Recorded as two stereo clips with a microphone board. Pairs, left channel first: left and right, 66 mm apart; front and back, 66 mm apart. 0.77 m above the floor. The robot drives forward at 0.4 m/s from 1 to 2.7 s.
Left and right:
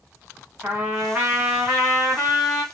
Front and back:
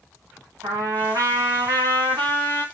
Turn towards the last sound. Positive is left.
turn(degrees=-165)